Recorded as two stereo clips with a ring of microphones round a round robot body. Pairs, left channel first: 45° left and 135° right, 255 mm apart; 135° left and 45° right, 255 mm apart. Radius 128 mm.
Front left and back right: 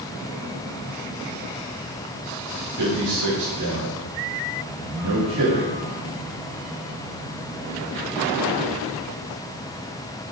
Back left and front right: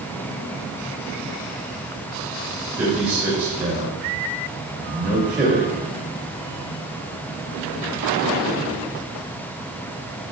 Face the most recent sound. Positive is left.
turn(degrees=-115)